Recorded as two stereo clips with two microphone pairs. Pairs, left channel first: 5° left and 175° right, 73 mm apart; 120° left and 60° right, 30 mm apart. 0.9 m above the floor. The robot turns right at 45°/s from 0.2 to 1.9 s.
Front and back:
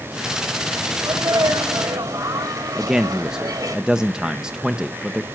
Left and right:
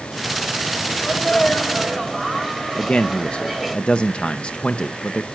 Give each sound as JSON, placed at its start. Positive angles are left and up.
{"t": 1.0, "sound": "a sneeze", "azimuth_deg": 170, "distance_m": 3.5}
{"t": 2.8, "sound": "a man speaking", "azimuth_deg": 110, "distance_m": 0.8}